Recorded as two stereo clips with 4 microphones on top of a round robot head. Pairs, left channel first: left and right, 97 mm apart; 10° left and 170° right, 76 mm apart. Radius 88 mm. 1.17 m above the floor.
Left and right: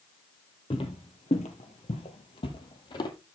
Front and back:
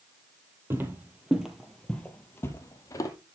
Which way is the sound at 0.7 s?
140° left.